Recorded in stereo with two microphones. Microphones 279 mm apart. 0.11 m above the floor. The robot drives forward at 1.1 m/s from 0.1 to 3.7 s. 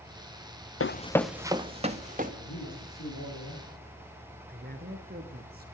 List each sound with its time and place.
0.8 s running footsteps: 55° left (ahead or behind), 0.6 m; by 2.3 s 30° right (ahead or behind), 2.5 m
2.4 s a man speaking: 65° left (ahead or behind), 6.5 m; by 3.8 s 75° left (ahead or behind), 6 m
4.5 s a man speaking: 35° right (ahead or behind), 1.7 m